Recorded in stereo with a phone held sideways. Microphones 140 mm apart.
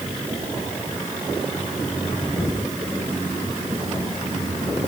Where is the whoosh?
No whoosh in this recording.